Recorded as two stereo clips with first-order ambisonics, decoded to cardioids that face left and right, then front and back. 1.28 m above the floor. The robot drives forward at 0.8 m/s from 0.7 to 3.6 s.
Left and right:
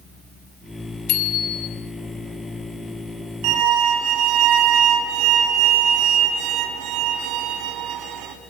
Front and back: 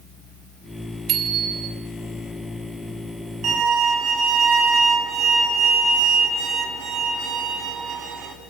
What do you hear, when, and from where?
1.1 s a bicycle bell: 130° left, 4.5 m; by 1.7 s 135° left, 5 m
3.4 s a violin: 125° right, 4 m